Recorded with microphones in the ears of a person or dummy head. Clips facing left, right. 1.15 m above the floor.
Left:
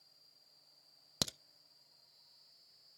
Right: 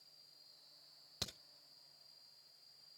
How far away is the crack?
About 0.5 m.